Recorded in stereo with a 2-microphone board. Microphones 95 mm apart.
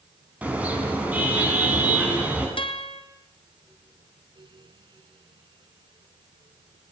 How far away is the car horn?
About 6.5 m.